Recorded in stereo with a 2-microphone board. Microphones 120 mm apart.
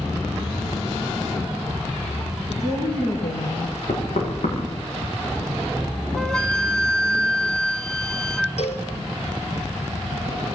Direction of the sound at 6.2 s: 5° left (ahead or behind).